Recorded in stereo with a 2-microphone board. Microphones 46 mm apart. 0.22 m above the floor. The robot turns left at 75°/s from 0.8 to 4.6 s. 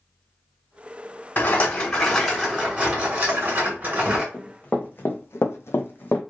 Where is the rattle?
65° left, 1.8 m; by 4.2 s 150° right, 1.8 m.